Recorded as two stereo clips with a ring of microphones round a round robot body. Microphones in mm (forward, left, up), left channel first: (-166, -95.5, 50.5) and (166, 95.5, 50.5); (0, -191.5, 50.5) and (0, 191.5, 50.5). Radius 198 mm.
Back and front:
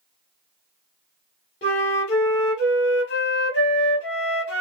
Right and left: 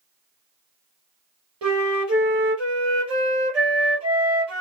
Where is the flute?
145° left, 1.5 m.